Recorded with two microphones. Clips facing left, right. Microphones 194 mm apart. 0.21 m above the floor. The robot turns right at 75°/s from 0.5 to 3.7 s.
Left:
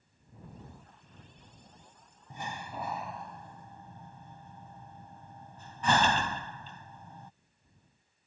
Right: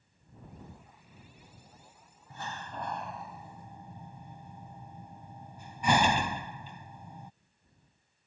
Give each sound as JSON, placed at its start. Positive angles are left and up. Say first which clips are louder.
{"t": 2.3, "sound": "a door slam", "louder": "left 1 dB", "side_deg": 15}